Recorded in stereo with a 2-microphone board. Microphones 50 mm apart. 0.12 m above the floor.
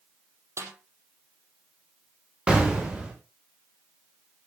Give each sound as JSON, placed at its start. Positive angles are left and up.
{"t": 0.6, "sound": "a snare drum", "side_deg": -70, "distance_m": 4.5}
{"t": 2.5, "sound": "an explosion", "side_deg": -20, "distance_m": 7.5}